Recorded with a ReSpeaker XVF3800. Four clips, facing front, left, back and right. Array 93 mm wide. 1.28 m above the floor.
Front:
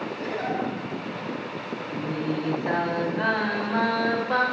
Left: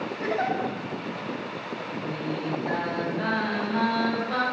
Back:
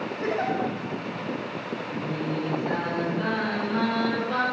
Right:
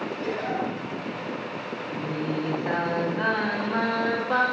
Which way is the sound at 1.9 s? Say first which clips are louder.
Right 3 dB, front 2 dB; 60° right.